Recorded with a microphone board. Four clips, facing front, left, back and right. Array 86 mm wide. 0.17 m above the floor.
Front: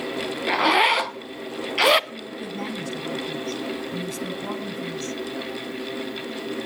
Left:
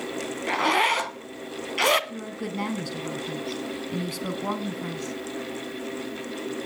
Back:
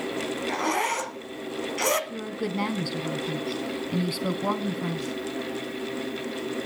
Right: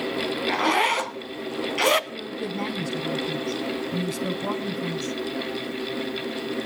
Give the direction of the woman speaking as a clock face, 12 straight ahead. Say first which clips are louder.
Right 2 dB, back 3 dB; 7 o'clock.